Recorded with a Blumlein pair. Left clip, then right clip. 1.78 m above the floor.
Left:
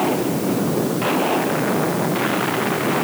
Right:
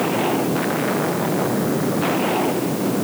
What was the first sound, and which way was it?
Only background noise.